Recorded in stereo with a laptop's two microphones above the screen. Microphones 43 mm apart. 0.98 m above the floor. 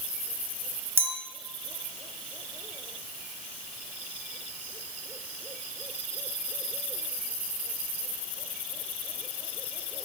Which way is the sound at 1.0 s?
55° right (ahead or behind).